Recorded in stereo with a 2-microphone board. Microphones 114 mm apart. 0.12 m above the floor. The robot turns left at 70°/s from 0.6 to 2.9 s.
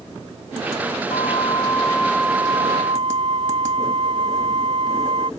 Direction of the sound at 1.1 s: 70° left.